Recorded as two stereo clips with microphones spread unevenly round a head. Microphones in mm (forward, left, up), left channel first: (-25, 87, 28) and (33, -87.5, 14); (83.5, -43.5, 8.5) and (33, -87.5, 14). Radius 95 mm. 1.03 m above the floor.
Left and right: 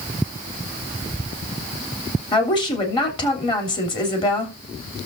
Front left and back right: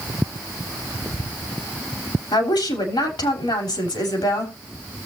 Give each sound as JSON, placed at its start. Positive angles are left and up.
{"t": 2.3, "sound": "a woman speaking", "azimuth_deg": 40, "distance_m": 3.0}